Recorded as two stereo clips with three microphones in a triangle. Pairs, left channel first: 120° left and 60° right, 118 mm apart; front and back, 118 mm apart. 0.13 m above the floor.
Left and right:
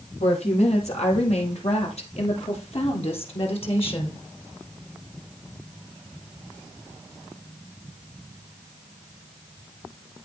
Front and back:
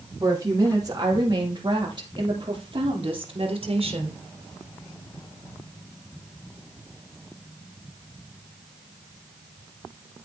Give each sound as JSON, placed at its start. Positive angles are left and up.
{"t": 0.2, "sound": "a woman speaking", "azimuth_deg": 125, "distance_m": 4.5}